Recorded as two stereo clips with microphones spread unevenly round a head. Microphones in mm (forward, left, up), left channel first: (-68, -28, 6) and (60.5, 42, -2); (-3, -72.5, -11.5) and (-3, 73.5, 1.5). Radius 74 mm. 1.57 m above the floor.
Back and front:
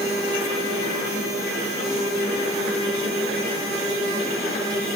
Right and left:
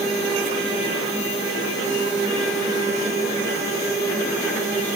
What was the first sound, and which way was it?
Only background noise.